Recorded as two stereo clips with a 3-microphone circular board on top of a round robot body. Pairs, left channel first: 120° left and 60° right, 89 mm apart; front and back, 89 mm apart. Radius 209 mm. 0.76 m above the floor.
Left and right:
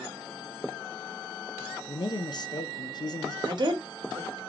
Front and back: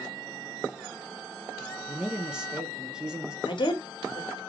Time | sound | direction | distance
1.9 | a man speaking | 100° left | 0.7 m
3.5 | a woman speaking | 25° right | 1.1 m